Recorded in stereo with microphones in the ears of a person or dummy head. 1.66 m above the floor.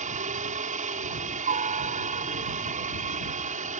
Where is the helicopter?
40° right (ahead or behind).